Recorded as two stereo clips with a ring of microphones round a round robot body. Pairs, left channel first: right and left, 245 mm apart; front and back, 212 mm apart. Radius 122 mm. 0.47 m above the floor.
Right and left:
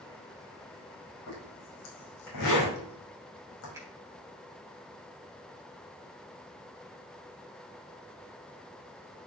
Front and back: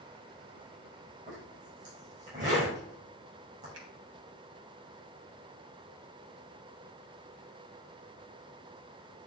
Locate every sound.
1.3 s a zipper: 115° right, 5.5 m
3.7 s a finger snap: 170° left, 3 m